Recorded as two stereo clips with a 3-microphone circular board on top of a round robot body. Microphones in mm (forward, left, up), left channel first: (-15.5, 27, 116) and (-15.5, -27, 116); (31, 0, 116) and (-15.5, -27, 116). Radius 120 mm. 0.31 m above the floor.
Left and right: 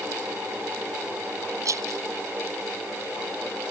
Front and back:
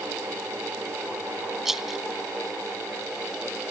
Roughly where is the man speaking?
I don't hear a man speaking.